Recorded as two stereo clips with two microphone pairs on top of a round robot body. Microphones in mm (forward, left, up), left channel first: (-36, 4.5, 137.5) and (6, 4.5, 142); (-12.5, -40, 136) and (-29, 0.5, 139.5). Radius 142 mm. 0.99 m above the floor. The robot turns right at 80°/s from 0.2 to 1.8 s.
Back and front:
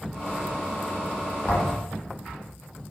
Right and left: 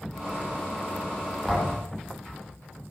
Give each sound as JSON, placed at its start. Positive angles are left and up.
{"t": 1.5, "sound": "a thud", "azimuth_deg": -155, "distance_m": 9.5}